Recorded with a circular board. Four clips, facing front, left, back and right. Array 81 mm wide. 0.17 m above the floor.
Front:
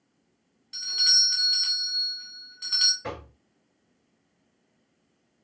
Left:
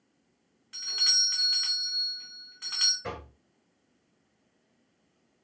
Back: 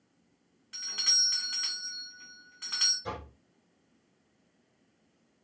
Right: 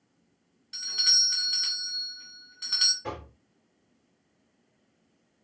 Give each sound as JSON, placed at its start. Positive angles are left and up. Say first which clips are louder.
{"t": 0.7, "sound": "a doorbell", "louder": "right 1 dB, front 6 dB", "azimuth_deg": 135, "distance_m": 1.8}
{"t": 3.0, "sound": "knocking", "louder": "right 1 dB, front 1 dB", "azimuth_deg": 25, "distance_m": 2.0}